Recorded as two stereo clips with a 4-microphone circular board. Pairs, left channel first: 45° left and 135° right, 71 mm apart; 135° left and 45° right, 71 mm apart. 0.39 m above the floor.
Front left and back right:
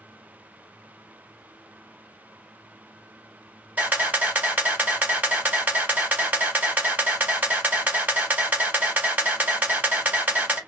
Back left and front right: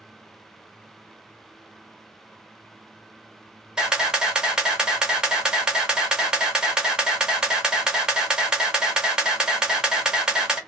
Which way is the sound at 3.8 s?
105° right.